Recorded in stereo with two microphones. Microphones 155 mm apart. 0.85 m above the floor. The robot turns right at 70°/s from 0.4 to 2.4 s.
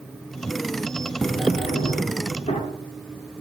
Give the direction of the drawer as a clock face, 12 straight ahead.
10 o'clock.